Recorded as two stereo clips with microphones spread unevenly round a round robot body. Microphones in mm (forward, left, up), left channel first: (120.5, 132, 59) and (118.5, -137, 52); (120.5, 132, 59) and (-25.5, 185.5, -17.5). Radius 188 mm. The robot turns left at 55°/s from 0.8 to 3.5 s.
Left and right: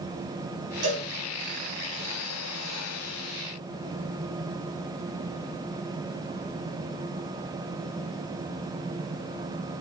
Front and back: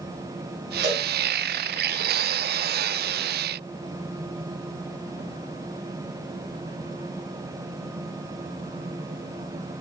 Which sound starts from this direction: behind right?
A cowbell, at 0.8 s.